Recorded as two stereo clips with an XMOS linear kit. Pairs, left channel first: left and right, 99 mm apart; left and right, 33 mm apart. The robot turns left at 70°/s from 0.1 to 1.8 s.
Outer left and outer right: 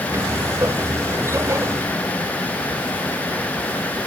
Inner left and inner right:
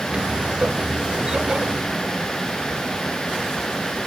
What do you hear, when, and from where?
Only background noise.